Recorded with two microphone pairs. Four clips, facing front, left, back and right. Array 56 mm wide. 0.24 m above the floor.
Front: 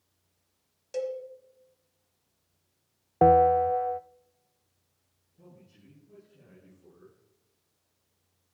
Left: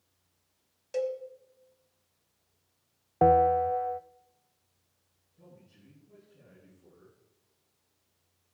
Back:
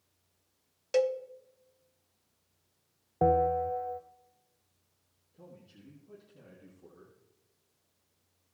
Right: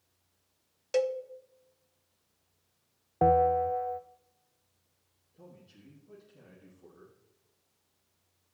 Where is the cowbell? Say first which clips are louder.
Right 3 dB, back 5 dB; 145° right, 0.7 m.